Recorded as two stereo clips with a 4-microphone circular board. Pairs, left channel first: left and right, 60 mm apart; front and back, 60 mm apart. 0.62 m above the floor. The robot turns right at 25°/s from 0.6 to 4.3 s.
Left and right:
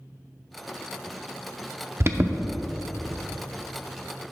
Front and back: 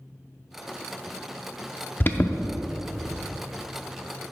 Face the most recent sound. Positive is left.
turn(degrees=5)